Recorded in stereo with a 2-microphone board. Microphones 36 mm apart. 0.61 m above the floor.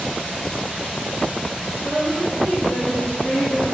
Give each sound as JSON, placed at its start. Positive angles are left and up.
{"t": 1.8, "sound": "a woman speaking", "side_deg": 80, "distance_m": 5.5}